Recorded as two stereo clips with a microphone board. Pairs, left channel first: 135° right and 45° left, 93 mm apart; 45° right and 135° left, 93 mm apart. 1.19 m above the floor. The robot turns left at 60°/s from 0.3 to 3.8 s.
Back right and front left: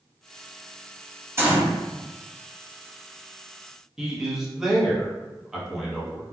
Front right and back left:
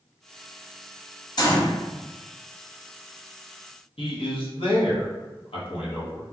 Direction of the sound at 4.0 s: 40° right.